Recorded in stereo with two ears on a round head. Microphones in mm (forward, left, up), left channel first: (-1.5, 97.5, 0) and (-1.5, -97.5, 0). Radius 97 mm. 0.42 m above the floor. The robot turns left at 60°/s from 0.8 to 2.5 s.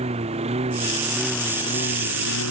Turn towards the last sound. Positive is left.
turn(degrees=110)